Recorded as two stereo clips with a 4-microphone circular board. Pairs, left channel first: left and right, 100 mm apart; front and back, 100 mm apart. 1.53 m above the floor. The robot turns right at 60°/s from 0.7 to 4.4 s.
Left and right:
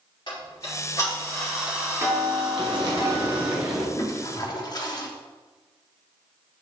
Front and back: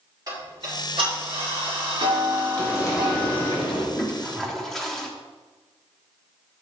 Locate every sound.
0.3 s ticking: 130° left, 4.5 m; by 3.6 s 55° right, 4.5 m
2.6 s frying: 70° right, 3 m; by 3.8 s 5° left, 3 m
3.9 s a toilet flushing: 55° left, 1.2 m; by 5.1 s 85° left, 1.2 m